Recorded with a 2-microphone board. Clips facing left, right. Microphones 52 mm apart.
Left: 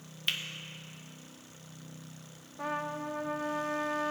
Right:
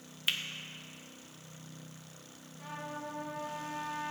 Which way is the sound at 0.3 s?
5° right (ahead or behind).